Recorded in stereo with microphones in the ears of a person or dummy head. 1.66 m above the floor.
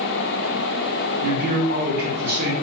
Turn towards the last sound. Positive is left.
turn(degrees=-50)  # may be behind; listen again after turning